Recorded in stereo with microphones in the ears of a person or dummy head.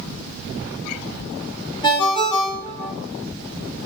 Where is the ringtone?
25° left (ahead or behind), 1.3 m.